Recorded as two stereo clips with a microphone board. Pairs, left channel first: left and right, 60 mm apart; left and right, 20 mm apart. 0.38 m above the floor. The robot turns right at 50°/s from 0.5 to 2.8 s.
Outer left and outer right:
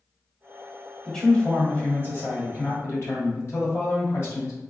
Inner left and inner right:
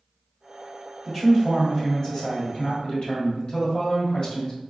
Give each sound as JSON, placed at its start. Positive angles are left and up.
{"t": 1.1, "sound": "a man speaking", "azimuth_deg": 5, "distance_m": 1.5}